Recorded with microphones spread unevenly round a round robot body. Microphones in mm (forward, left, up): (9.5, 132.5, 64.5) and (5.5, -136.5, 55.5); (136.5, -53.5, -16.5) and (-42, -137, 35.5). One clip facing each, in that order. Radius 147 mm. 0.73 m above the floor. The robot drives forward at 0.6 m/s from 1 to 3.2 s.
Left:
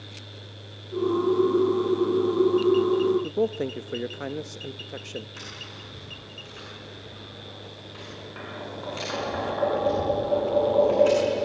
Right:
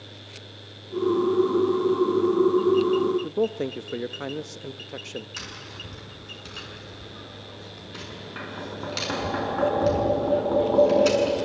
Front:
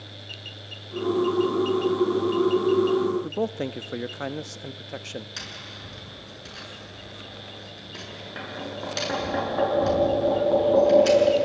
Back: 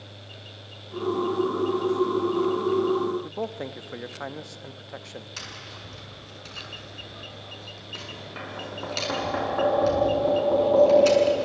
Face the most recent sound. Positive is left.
turn(degrees=-60)